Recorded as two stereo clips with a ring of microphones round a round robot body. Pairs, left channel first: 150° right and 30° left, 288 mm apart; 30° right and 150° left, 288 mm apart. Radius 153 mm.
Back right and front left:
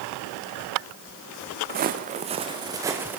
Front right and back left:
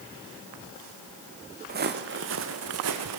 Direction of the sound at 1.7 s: 90° left.